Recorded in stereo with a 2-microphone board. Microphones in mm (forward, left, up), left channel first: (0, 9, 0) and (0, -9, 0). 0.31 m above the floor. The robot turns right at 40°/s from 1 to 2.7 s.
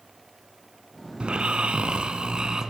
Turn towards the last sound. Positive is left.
turn(degrees=-40)